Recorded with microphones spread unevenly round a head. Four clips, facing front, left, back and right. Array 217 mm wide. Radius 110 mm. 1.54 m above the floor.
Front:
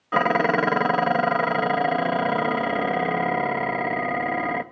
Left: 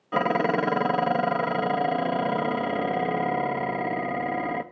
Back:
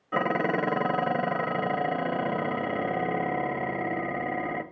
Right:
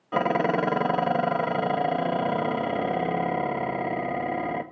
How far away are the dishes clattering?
About 0.9 m.